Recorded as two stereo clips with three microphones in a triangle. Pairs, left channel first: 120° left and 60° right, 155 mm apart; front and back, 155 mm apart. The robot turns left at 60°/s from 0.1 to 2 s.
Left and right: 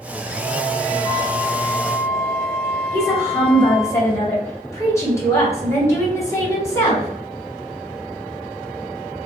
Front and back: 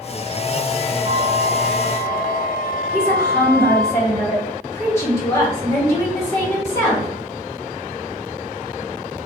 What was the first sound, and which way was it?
A flute, 160° right.